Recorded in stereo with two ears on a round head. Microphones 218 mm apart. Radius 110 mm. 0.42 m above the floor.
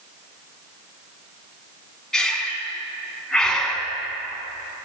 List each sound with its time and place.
2.1 s breathing: 5° left (ahead or behind), 0.9 m